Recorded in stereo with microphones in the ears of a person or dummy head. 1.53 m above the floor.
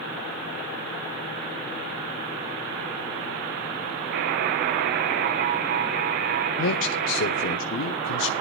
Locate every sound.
4.1 s a buzzer: 55° right (ahead or behind), 1.0 m
6.6 s a man speaking: 70° left (ahead or behind), 0.9 m